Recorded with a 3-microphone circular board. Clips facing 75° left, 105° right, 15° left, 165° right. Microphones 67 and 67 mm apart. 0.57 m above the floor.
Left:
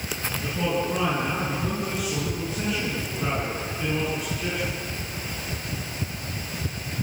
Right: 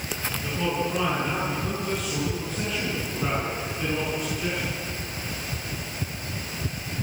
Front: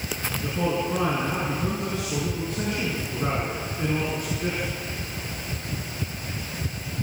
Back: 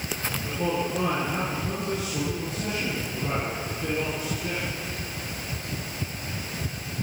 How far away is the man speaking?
About 9 m.